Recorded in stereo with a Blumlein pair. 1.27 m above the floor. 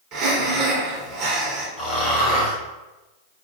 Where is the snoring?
25° left, 1.4 m.